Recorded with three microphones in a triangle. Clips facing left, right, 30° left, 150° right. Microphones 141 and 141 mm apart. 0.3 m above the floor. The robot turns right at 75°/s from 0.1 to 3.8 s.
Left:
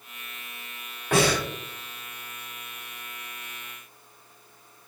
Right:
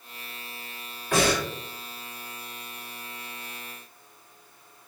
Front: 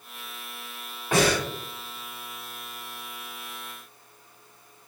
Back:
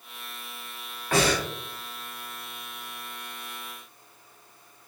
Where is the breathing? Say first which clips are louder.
Left 1 dB, front 1 dB; 95° left, 1.7 m; by 1.5 s 125° left, 1.7 m.